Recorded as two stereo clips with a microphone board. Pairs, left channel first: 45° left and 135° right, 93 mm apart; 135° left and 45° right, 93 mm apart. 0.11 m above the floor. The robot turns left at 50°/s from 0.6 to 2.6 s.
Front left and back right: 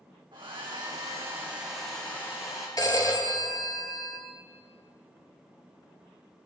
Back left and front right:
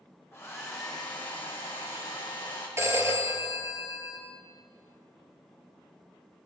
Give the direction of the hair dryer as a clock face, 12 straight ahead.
5 o'clock.